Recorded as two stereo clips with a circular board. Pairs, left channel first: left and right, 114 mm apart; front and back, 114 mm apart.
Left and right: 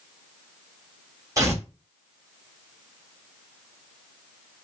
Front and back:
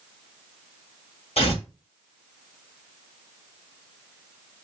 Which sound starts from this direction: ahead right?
Tearing paper, at 1.4 s.